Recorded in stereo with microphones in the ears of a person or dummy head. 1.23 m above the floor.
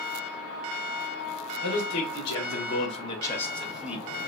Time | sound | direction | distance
1.6 | a man speaking | 80° left | 1.1 m